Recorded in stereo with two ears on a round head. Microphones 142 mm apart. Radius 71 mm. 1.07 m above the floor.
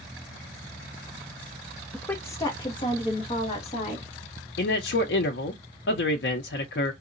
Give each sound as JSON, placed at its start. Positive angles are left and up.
{"t": 1.9, "sound": "a woman speaking", "side_deg": 5, "distance_m": 0.5}
{"t": 4.6, "sound": "a man speaking", "side_deg": 75, "distance_m": 0.5}